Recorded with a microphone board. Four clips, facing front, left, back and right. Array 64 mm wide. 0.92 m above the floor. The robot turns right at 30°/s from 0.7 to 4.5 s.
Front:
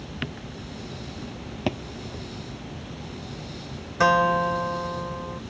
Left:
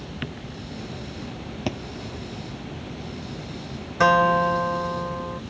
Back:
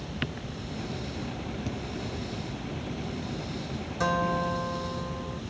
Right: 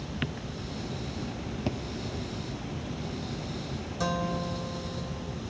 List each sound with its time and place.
1.7 s a thud: 20° left; by 1.8 s 25° left
4.0 s a guitar: 50° left; by 5.4 s 65° left